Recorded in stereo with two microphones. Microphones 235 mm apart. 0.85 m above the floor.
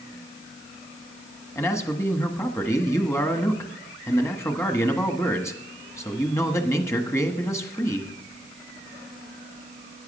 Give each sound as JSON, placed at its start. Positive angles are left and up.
{"t": 1.6, "sound": "a man speaking", "side_deg": 10, "distance_m": 1.2}